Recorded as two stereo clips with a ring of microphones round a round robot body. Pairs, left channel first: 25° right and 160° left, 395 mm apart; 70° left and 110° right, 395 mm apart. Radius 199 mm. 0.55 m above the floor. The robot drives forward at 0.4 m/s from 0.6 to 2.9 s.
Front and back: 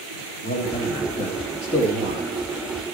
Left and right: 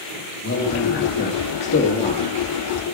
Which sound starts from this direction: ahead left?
A man speaking, at 0.4 s.